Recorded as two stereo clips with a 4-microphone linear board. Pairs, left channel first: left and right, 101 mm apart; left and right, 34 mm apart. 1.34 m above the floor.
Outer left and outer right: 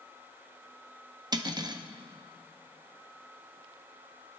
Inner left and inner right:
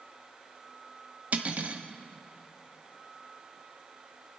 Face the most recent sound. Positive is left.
turn(degrees=-40)  # may be behind; listen again after turning